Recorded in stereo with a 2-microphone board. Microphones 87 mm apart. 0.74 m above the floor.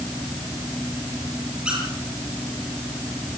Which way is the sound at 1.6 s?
10° right (ahead or behind).